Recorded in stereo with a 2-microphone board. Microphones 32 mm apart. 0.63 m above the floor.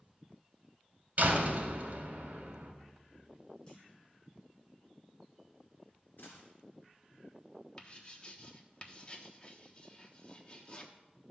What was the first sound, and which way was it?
A door slam, 50° right (ahead or behind).